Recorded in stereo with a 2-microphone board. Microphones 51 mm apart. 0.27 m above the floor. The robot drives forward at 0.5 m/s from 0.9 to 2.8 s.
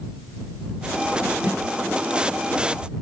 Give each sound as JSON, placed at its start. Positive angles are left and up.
{"t": 1.4, "sound": "a snare drum", "side_deg": -35, "distance_m": 6.0}